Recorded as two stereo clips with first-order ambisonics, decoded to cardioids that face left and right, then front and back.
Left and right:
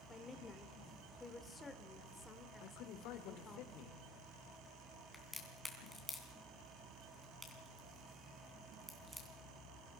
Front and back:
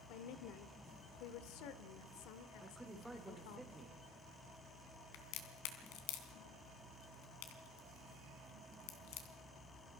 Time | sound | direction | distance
0.1 | a woman speaking | 10° left | 1.5 m
2.6 | a man speaking | 90° left | 2 m
5.1 | a crack | straight ahead | 3 m